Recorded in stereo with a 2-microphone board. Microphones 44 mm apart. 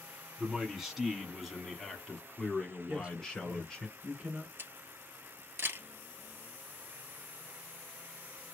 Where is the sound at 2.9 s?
25° right (ahead or behind), 1.6 m.